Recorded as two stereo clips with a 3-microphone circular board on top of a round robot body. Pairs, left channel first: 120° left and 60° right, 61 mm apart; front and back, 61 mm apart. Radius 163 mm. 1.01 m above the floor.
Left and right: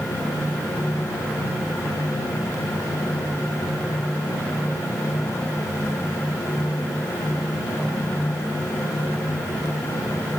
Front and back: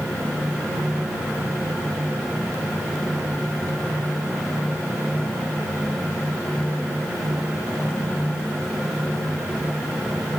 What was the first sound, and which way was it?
Only background noise.